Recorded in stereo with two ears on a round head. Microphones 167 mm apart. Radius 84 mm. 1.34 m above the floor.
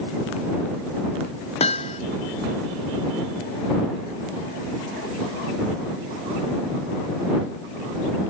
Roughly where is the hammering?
Left.